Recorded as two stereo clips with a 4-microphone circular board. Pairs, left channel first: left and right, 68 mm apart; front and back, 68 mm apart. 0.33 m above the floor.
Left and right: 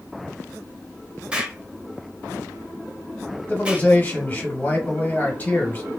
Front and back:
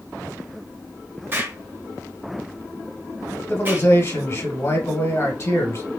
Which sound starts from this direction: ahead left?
A man speaking, at 3.5 s.